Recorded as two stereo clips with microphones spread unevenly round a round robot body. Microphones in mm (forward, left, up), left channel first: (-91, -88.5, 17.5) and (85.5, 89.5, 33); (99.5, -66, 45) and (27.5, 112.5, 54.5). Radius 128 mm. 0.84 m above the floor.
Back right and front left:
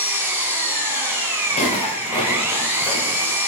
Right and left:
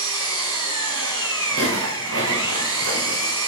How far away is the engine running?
About 7 m.